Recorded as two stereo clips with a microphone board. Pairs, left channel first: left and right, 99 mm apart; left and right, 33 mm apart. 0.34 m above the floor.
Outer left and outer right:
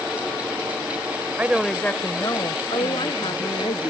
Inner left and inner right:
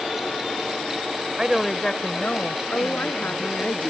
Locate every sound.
1.4 s a woman speaking: 20° right (ahead or behind); by 3.7 s 70° left (ahead or behind)
2.7 s a woman speaking: 60° left (ahead or behind)